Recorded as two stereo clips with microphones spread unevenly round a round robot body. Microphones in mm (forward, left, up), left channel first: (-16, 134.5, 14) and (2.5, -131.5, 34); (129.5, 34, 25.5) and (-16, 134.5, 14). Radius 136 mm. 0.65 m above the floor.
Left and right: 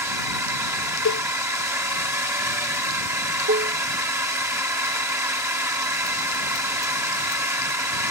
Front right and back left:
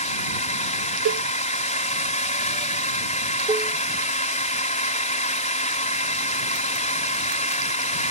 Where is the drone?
5° right.